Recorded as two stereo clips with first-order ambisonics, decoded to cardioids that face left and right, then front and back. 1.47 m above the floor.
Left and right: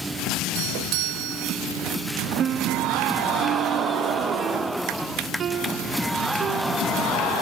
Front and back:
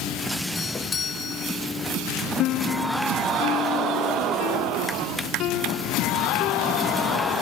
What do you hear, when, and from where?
0.6 s a doorbell: 70° right
2.4 s a piano: 35° right